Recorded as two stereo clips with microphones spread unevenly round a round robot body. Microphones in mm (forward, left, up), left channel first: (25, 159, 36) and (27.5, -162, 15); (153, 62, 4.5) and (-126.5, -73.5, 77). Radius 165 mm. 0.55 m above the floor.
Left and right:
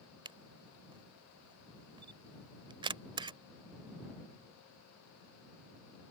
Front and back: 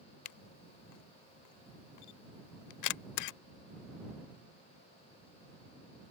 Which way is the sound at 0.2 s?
15° right.